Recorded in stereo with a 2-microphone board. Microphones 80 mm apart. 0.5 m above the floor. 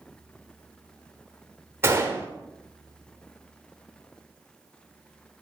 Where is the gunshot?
30° right (ahead or behind), 1.2 m.